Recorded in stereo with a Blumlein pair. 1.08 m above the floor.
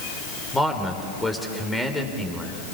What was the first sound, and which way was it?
A man speaking, 10° left.